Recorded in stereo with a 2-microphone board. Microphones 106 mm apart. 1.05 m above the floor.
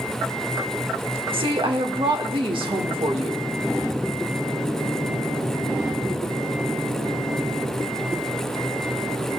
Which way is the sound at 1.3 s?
50° right (ahead or behind).